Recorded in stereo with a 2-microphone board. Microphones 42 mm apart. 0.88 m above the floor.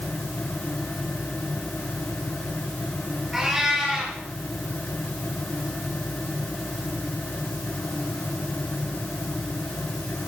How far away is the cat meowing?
About 7.5 m.